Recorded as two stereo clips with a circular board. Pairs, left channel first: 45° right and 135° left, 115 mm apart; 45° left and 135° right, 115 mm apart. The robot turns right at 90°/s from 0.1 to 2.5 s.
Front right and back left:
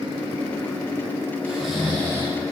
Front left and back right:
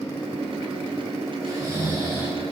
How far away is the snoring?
About 1.6 m.